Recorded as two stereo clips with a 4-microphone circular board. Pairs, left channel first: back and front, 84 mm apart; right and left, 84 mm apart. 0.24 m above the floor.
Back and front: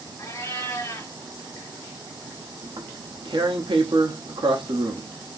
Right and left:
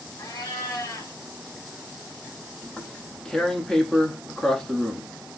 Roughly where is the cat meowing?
Behind right.